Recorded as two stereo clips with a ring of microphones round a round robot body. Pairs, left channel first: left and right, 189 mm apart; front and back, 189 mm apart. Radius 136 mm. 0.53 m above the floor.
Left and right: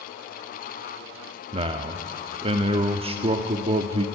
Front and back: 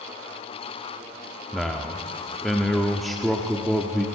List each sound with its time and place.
1.5 s a man speaking: 90° right, 0.8 m